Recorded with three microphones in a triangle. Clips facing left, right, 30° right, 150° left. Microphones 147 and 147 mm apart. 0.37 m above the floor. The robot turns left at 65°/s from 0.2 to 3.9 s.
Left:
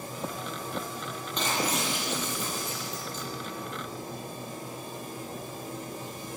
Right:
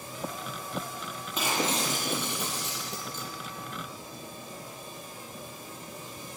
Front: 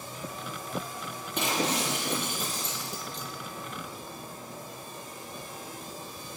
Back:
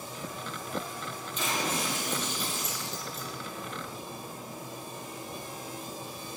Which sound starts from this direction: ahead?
Breaking glass, at 1.4 s.